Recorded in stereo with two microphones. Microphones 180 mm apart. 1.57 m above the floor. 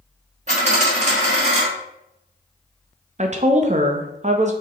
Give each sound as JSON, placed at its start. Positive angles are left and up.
{"t": 0.5, "sound": "a dropped coin", "side_deg": -40, "distance_m": 1.4}
{"t": 3.2, "sound": "a woman speaking", "side_deg": -40, "distance_m": 0.6}